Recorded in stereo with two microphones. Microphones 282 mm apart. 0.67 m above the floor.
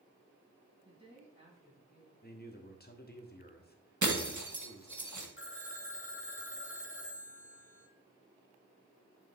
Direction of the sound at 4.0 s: 80° right.